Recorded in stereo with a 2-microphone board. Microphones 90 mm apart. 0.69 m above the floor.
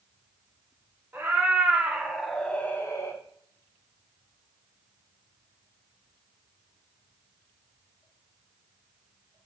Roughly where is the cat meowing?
Right.